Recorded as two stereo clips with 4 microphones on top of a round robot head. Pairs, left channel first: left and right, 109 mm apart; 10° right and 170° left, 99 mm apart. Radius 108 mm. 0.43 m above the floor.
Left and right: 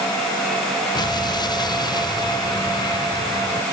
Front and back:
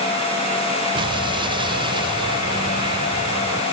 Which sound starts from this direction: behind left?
An explosion, at 0.9 s.